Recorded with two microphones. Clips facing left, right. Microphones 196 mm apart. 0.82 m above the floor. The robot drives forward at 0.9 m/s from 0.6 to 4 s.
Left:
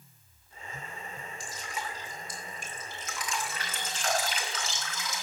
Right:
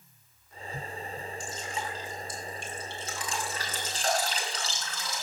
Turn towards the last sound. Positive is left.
turn(degrees=-35)  # may be behind; listen again after turning